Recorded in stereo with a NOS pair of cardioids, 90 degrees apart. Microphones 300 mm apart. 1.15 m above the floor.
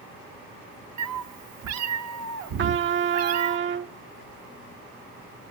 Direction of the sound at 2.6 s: 40° right.